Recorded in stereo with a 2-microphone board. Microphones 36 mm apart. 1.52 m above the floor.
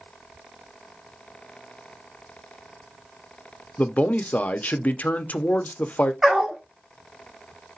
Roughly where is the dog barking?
Centre.